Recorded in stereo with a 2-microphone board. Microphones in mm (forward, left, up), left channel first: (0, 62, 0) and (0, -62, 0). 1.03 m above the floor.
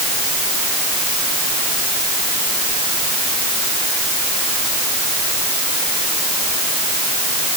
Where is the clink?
No clink in this recording.